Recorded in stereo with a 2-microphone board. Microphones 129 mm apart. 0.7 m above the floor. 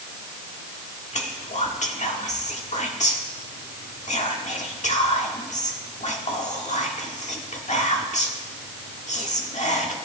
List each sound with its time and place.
1.1 s whispering: 65° left (ahead or behind), 1.6 m